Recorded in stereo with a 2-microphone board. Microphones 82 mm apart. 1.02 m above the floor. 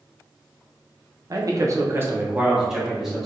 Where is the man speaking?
45° right (ahead or behind), 0.6 m; by 3.3 s centre (ahead or behind), 1.0 m.